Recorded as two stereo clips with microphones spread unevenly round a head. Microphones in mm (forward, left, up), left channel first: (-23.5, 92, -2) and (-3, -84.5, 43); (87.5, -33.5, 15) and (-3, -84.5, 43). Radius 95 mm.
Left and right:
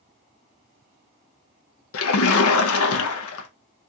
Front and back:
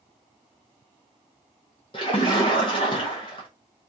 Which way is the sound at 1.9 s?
95° left.